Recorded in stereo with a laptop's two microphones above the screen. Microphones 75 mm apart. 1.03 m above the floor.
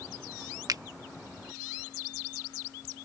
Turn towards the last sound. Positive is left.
turn(degrees=-55)  # may be behind; listen again after turning